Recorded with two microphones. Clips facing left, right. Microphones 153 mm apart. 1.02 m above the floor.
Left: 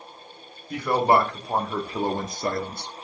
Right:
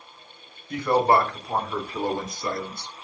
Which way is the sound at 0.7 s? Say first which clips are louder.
Even; 10° left (ahead or behind).